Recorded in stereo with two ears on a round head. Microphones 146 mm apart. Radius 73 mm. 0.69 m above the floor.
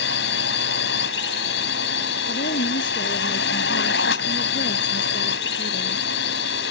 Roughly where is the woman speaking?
Left.